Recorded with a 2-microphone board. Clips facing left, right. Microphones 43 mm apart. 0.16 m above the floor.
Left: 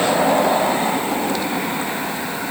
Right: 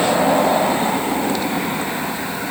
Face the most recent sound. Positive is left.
No sound to turn to.